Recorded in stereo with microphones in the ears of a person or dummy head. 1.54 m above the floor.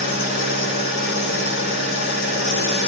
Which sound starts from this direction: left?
An engine running, at 0.0 s.